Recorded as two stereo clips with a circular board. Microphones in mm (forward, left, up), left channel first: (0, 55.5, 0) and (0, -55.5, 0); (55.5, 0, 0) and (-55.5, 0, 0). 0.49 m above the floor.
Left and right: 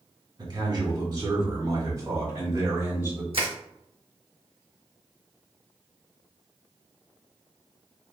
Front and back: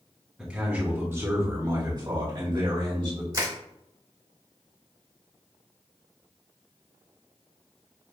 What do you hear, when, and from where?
0.4 s a man speaking: 100° right, 1.3 m; by 3.2 s 150° right, 2 m
3.3 s crushing: 120° right, 1.0 m